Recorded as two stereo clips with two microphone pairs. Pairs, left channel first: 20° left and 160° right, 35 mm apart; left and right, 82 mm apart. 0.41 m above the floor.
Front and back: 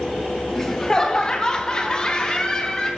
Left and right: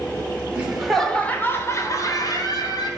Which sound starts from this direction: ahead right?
Laughter, at 0.6 s.